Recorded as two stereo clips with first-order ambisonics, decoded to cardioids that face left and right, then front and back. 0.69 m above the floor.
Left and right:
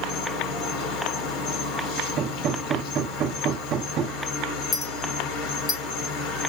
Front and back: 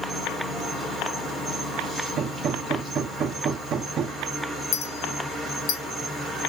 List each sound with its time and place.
0.0 s an insect: 95° left, 1.5 m
2.2 s hammering: 130° right, 0.5 m
4.7 s a clink: 20° left, 1.8 m